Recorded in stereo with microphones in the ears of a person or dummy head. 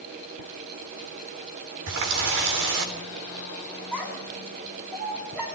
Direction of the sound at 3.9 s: 10° right (ahead or behind).